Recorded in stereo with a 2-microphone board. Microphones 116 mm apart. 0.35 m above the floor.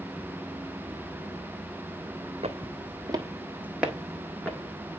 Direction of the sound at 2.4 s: 60° right (ahead or behind).